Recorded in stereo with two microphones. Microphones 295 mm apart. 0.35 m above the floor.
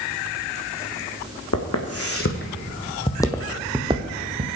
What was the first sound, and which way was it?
Footsteps, 60° left (ahead or behind).